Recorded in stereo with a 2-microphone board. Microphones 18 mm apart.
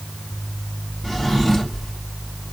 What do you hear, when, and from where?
1.0 s a drawer: 20° left (ahead or behind), 2 m